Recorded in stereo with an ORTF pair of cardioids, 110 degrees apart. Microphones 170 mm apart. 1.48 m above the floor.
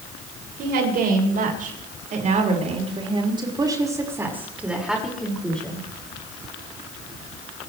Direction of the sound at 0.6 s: 65° right.